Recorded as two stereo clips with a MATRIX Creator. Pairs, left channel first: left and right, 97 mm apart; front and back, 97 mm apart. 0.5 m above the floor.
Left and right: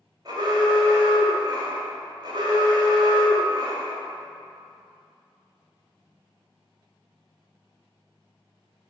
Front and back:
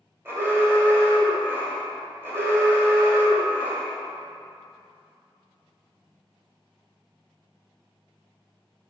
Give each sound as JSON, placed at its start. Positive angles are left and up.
{"t": 0.2, "sound": "an alarm", "azimuth_deg": -120, "distance_m": 1.8}